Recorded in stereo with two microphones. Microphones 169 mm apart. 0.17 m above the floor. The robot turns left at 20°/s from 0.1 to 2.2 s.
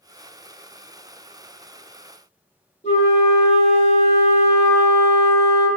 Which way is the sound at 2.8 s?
40° left (ahead or behind).